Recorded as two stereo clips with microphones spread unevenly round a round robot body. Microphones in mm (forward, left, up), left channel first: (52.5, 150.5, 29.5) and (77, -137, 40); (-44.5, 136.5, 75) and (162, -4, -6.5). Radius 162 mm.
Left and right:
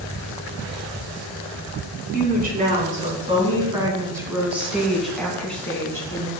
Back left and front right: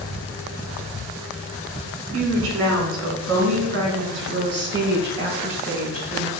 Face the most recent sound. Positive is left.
turn(degrees=15)